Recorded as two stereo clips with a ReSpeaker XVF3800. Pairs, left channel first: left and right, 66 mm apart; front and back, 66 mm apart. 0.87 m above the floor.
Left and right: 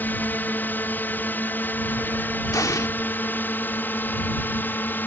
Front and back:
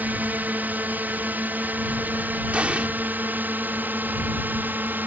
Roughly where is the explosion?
Left.